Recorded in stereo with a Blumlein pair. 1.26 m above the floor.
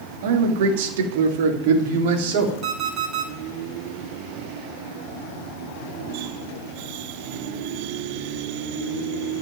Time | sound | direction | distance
0.2 | a man speaking | 50° right | 2.5 m
2.6 | an alarm clock | 35° right | 3.5 m